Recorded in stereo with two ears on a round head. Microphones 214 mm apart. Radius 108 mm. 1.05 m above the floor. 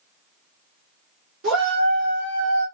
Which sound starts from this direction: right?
A shout, at 1.4 s.